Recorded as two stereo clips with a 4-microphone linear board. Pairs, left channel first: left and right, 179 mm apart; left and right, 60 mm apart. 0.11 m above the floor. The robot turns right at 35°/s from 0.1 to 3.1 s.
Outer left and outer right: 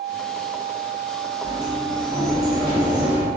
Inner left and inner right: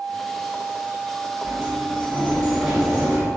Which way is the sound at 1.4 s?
25° right (ahead or behind).